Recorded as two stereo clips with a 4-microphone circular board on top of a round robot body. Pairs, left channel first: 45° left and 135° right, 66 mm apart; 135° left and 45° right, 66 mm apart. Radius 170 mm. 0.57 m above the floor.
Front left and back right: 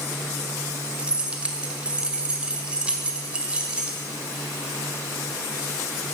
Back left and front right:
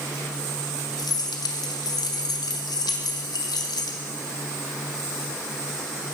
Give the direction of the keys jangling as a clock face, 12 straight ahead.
7 o'clock.